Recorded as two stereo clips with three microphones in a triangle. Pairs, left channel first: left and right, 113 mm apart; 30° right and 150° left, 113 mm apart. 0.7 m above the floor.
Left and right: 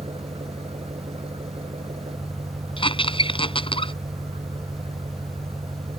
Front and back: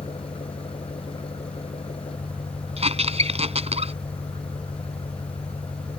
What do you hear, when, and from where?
0.0 s an engine running: 60° right
2.8 s a squeak: 130° left